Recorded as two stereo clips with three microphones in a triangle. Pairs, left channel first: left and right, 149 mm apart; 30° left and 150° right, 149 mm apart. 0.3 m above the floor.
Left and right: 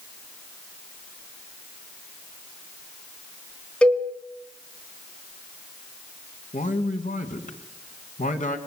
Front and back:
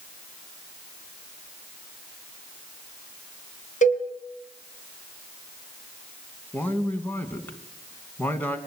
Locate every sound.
3.8 s a cowbell: 5° left, 3 m
6.5 s a man speaking: 105° left, 3 m